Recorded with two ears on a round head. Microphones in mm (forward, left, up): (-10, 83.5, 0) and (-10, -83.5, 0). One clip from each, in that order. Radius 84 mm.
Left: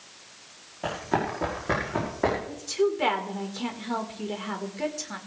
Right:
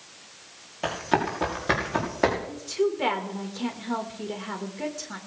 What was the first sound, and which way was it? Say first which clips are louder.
Running footsteps: right 2 dB; 70° right (ahead or behind).